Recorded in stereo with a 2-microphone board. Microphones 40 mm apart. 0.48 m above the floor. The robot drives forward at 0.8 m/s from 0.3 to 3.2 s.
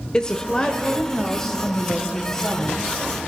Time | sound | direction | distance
0.1 | a woman speaking | 20° left (ahead or behind) | 1.1 m